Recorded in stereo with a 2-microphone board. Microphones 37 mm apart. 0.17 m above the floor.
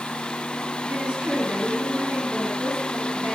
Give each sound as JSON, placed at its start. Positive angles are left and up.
{"t": 0.9, "sound": "a woman speaking", "side_deg": -30, "distance_m": 1.6}